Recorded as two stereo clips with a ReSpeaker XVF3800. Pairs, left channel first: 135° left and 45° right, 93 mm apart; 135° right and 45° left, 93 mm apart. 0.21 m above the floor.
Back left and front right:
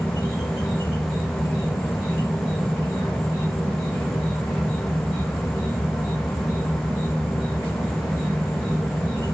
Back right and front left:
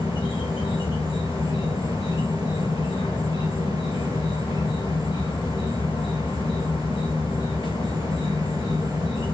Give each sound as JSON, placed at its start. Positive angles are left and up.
{"t": 0.0, "sound": "an insect", "azimuth_deg": -165, "distance_m": 3.5}